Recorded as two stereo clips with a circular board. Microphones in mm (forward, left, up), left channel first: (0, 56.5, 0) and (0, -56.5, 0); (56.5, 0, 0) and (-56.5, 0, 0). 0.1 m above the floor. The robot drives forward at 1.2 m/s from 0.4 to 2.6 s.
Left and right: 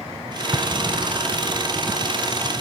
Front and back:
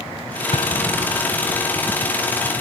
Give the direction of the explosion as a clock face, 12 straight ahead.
1 o'clock.